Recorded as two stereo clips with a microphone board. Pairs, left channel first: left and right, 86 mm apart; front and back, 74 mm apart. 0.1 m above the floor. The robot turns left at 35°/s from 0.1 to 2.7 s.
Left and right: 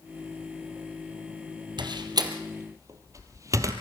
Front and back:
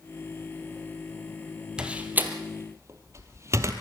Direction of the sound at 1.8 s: 105° right.